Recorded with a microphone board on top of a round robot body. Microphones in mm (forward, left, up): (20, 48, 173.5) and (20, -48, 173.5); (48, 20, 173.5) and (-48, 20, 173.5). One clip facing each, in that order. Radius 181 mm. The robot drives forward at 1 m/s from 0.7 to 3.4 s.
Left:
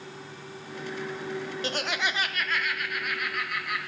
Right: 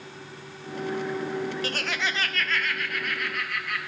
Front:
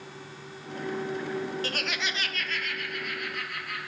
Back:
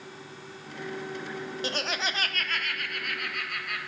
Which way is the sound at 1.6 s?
130° left.